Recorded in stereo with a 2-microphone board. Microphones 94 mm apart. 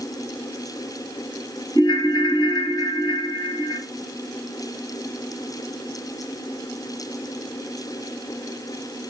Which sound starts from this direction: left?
A ringtone, at 1.8 s.